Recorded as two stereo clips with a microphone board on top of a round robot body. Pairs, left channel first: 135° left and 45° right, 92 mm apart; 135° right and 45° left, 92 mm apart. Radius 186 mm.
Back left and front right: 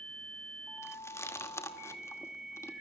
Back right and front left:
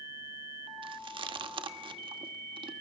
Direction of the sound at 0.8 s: 75° left.